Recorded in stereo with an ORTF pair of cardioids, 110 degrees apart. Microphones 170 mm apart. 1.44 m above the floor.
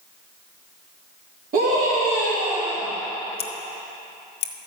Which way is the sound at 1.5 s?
55° right.